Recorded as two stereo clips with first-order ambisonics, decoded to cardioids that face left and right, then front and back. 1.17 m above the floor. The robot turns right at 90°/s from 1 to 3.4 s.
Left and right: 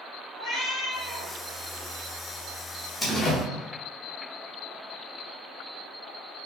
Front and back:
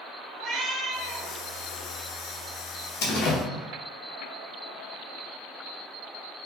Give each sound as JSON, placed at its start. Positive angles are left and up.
{"t": 0.3, "sound": "a cat meowing", "azimuth_deg": 125, "distance_m": 1.8}
{"t": 3.0, "sound": "a door slam", "azimuth_deg": 10, "distance_m": 0.8}